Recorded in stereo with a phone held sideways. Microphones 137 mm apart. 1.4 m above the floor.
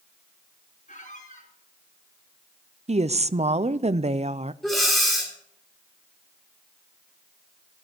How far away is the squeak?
About 4.5 m.